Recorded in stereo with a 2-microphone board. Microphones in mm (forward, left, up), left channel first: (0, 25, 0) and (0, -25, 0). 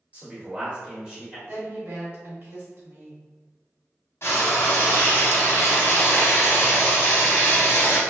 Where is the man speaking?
25° right (ahead or behind), 1.3 m; by 1.4 s 10° right (ahead or behind), 1.3 m.